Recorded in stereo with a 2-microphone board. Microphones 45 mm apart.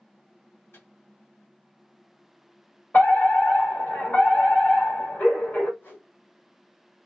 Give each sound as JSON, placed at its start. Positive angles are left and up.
{"t": 0.7, "sound": "a microwave", "side_deg": 70, "distance_m": 1.9}
{"t": 2.9, "sound": "a fire alarm", "side_deg": 50, "distance_m": 2.0}
{"t": 5.8, "sound": "a whoosh", "side_deg": 45, "distance_m": 1.6}